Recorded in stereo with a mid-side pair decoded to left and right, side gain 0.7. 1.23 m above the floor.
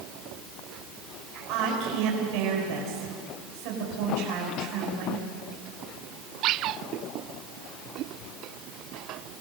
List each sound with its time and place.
1.5 s a woman speaking: 70° right, 6 m